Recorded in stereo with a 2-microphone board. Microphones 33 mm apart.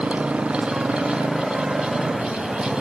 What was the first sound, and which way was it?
A motorcycle, 35° right (ahead or behind).